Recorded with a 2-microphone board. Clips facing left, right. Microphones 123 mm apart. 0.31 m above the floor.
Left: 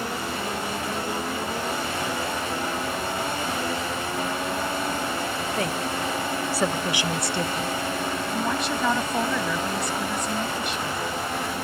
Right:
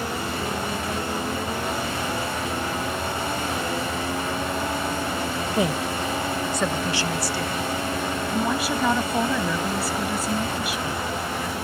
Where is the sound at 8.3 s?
5° right (ahead or behind).